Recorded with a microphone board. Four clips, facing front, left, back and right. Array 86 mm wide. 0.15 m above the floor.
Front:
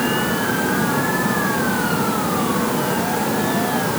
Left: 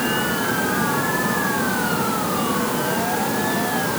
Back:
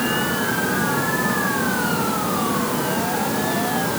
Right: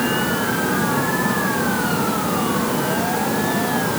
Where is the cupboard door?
I don't hear a cupboard door.